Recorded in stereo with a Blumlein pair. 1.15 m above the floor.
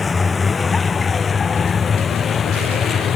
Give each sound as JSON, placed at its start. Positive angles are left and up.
{"t": 0.0, "sound": "a vehicle", "azimuth_deg": 15}